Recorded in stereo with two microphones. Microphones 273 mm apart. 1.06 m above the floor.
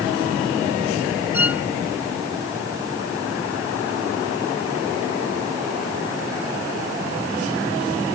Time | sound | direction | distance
1.3 | a violin | 5° right (ahead or behind) | ?